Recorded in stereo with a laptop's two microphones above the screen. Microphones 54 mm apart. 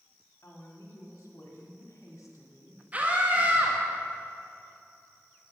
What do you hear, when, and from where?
0.4 s a woman speaking: 75° left (ahead or behind), 2.0 m
2.9 s a scream: 30° right (ahead or behind), 1.4 m